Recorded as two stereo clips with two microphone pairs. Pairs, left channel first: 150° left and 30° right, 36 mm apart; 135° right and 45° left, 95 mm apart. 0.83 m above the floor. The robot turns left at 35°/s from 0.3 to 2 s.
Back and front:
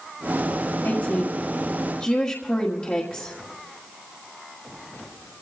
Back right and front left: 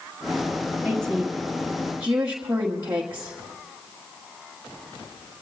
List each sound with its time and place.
0.8 s a woman speaking: 150° left, 1.5 m; by 3.4 s 110° left, 1.5 m